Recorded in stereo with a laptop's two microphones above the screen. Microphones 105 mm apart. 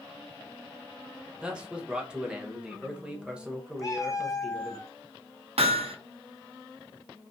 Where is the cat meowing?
35° left (ahead or behind), 0.6 m.